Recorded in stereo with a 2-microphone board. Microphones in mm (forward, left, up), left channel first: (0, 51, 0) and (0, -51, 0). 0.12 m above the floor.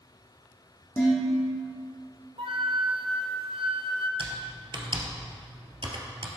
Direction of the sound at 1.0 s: 25° left (ahead or behind).